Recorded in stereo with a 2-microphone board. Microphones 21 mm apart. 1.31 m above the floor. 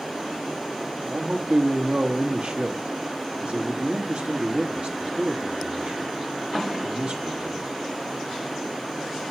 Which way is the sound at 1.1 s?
70° right (ahead or behind).